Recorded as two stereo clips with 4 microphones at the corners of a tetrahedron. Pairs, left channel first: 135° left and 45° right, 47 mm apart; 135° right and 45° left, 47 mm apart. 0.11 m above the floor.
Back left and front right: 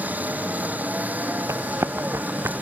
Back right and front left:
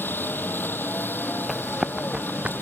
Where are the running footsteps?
50° right; by 2.5 s 20° right.